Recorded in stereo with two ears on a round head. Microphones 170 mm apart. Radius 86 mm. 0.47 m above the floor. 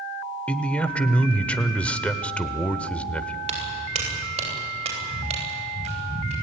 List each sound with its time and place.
0.5 s a man speaking: 5° left (ahead or behind), 1.2 m
3.5 s footsteps: 35° right (ahead or behind), 9 m; by 6.3 s 40° right (ahead or behind), 12.5 m